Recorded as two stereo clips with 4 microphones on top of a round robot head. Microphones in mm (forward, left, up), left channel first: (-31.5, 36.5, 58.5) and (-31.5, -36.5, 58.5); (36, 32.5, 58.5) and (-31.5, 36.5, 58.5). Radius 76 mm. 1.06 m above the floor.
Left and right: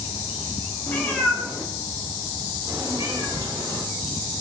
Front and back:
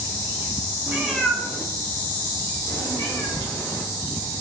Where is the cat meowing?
135° left, 0.6 m; by 3.8 s 30° right, 1.7 m.